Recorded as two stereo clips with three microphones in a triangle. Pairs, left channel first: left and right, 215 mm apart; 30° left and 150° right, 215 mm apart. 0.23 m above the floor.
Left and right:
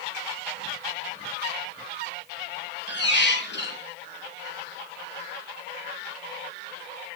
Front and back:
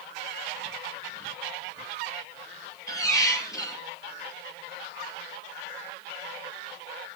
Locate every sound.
2.9 s a squeak: 100° left, 2 m